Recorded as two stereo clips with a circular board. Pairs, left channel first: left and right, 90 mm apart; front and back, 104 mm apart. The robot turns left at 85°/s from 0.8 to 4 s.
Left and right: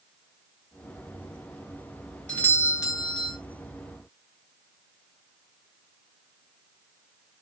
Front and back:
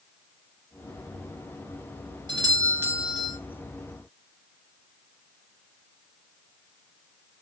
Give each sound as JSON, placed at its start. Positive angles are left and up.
{"t": 2.3, "sound": "a doorbell", "azimuth_deg": 165, "distance_m": 2.0}